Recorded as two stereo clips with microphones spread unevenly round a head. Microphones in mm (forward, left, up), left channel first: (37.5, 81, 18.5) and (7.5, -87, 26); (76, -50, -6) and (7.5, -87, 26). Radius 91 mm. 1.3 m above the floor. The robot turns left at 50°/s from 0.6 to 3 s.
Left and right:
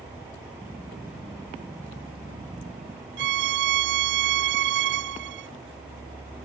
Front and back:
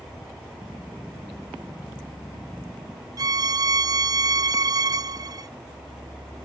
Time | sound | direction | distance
3.2 | a violin | 100° right | ?